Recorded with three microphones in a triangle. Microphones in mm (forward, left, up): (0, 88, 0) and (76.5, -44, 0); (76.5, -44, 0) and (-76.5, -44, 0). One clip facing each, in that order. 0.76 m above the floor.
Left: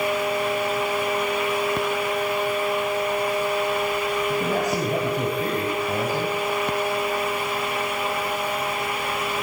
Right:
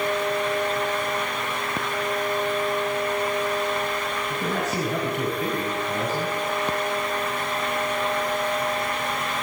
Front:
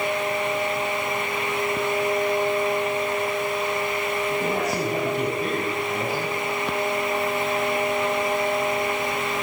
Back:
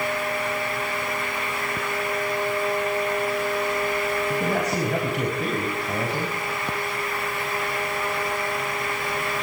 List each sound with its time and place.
4.3 s a man speaking: 170° left, 6 m